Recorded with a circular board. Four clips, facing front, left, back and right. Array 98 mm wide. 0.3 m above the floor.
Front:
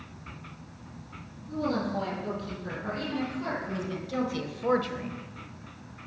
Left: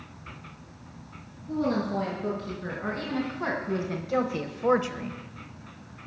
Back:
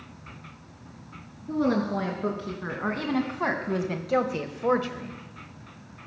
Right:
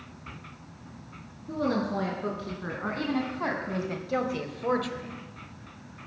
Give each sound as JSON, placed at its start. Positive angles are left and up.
{"t": 1.5, "sound": "a woman speaking", "azimuth_deg": -160, "distance_m": 4.5}